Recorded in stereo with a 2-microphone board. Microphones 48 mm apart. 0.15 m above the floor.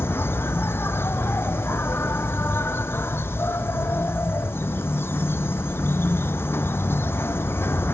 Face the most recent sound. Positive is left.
turn(degrees=55)  # may be behind; listen again after turning